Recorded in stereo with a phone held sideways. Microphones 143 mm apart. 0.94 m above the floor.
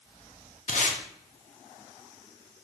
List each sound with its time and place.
0.7 s tape being pulled: 60° left (ahead or behind), 0.7 m